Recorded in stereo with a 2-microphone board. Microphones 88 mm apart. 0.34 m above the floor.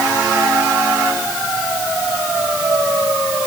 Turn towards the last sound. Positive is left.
No sound to turn to.